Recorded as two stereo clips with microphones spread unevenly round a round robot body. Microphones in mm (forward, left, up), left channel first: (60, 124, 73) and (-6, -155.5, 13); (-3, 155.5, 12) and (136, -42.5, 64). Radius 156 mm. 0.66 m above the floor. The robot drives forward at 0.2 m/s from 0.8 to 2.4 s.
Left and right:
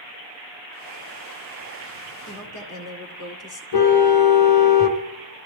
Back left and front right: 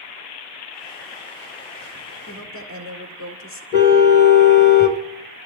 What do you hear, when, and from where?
2.3 s a woman speaking: 120° left, 2 m
3.7 s a car horn: 75° left, 2.5 m